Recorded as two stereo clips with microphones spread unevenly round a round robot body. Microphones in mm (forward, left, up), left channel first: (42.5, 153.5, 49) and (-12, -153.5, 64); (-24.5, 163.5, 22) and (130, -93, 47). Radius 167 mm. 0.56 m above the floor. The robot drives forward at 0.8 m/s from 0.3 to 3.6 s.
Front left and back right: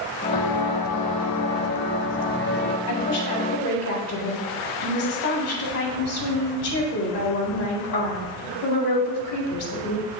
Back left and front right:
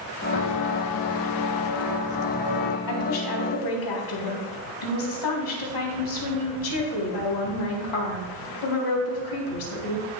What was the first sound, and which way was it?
Footsteps, 100° left.